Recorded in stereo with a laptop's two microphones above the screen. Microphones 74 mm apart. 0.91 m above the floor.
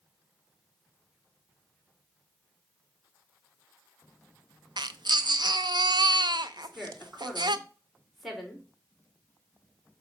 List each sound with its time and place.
4.8 s a baby crying: 75° right (ahead or behind), 0.5 m
6.6 s a woman speaking: centre (ahead or behind), 3 m